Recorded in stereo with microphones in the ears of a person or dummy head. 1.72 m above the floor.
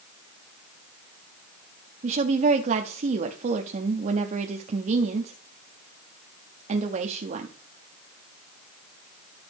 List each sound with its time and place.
2.0 s a woman speaking: 40° right (ahead or behind), 0.7 m